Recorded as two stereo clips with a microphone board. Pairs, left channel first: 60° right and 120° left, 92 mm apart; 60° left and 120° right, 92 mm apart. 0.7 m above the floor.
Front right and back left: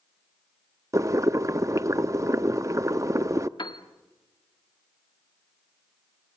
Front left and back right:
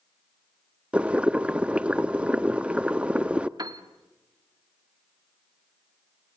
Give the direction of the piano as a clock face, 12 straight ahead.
3 o'clock.